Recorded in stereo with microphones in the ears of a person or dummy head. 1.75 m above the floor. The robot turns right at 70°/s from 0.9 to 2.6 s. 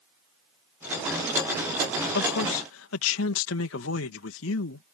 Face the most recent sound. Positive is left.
turn(degrees=105)